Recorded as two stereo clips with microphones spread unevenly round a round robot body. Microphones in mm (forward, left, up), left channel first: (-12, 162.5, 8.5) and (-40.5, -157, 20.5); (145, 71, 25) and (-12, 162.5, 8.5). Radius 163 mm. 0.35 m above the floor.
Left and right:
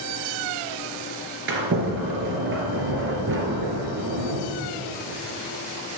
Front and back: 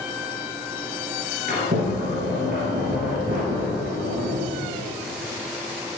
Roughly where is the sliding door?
Behind right.